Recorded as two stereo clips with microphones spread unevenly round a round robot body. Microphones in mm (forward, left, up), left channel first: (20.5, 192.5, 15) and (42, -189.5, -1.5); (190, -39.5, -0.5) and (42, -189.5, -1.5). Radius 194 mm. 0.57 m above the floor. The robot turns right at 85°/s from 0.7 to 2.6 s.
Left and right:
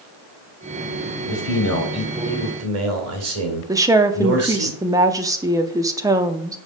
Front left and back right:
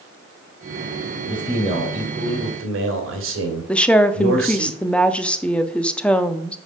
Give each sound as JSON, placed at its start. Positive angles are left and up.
{"t": 1.3, "sound": "a man speaking", "azimuth_deg": 110, "distance_m": 2.5}
{"t": 3.7, "sound": "a woman speaking", "azimuth_deg": -30, "distance_m": 0.6}